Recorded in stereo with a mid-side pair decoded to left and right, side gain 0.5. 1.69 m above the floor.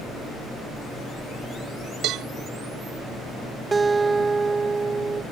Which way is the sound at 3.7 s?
25° right.